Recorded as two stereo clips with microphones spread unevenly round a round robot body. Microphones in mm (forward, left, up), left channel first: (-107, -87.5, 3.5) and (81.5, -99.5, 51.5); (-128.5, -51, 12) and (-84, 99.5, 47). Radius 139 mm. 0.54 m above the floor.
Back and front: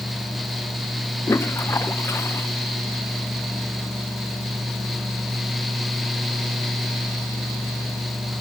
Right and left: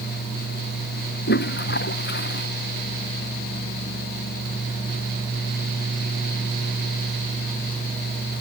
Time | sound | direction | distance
1.3 | a toilet flushing | 105° right | ?